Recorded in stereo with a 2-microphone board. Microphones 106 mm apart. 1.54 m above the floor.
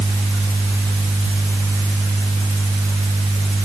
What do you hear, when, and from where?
Only background noise.